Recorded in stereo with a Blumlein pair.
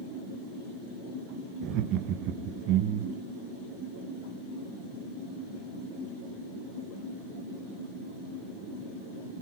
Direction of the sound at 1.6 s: 35° right.